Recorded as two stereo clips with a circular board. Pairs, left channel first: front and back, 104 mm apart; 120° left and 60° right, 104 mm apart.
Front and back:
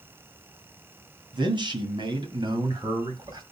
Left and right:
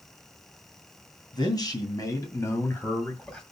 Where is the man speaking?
155° left, 2.5 m; by 3.4 s 165° right, 1.8 m.